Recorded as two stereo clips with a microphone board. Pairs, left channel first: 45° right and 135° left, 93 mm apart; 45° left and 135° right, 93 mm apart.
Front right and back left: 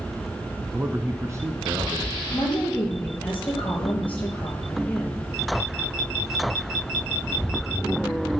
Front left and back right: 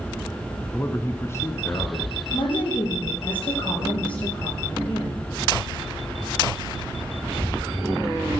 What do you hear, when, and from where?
0.7 s a man speaking: 75° left, 1.1 m; by 2.2 s 100° left, 2 m
2.3 s a woman speaking: 25° left, 5 m